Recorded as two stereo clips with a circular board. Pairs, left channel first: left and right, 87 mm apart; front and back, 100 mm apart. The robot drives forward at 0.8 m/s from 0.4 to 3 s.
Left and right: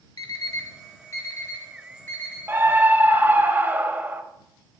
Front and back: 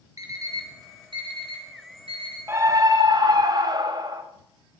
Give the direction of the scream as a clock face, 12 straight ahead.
4 o'clock.